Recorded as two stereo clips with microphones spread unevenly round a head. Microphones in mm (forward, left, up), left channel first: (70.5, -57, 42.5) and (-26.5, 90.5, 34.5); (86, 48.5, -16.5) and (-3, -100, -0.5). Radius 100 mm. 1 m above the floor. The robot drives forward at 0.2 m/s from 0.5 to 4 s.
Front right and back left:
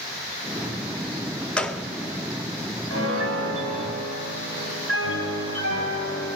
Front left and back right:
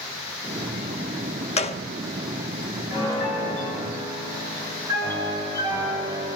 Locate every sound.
1.6 s a gunshot: 20° left, 0.6 m; by 1.8 s 25° left, 0.5 m
2.9 s a piano: 135° left, 4 m; by 6.3 s 140° left, 4.5 m